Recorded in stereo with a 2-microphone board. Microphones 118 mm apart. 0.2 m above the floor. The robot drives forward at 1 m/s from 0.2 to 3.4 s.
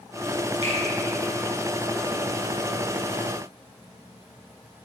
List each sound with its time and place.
0.6 s a finger snap: 60° left (ahead or behind), 3 m